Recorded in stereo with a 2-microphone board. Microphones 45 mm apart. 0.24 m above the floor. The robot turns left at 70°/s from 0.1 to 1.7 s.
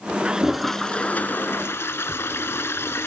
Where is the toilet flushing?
155° right, 1.0 m; by 3.1 s 105° left, 1.0 m.